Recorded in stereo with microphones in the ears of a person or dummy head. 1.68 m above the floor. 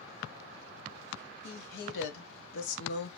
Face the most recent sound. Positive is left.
turn(degrees=65)  # may be behind; listen again after turning